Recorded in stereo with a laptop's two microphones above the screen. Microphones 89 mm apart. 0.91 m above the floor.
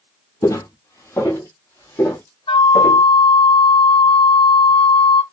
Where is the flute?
90° left, 0.5 m.